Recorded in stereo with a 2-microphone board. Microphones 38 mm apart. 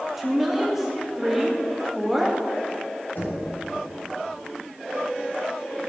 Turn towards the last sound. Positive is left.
turn(degrees=60)  # may be behind; listen again after turning